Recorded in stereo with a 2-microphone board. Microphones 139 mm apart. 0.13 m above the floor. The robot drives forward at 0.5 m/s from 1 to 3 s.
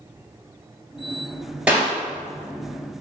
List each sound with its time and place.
1.7 s a clap: 10° right (ahead or behind), 1.8 m